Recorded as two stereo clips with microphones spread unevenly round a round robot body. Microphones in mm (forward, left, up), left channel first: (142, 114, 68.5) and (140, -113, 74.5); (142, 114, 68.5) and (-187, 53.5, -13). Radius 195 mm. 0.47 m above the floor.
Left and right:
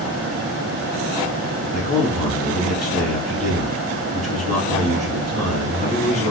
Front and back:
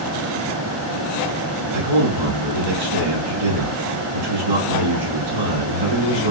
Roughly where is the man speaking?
Behind.